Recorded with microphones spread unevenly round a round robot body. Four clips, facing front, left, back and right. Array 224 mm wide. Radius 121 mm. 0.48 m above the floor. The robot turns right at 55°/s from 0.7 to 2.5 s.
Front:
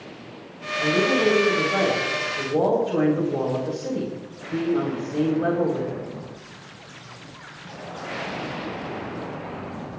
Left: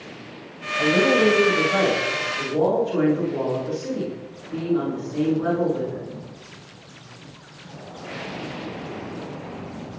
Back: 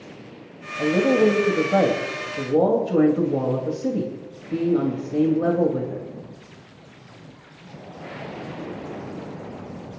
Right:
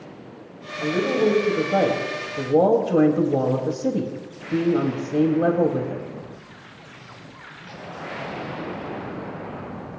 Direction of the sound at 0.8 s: 150° left.